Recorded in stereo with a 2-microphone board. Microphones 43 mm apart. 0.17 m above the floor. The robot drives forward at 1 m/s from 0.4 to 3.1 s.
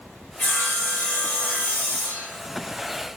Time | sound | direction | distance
0.4 | sawing | 30° left (ahead or behind) | 3.5 m